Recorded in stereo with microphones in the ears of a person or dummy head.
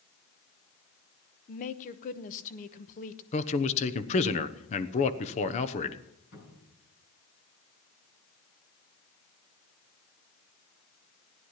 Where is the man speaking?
40° left (ahead or behind), 1.1 m.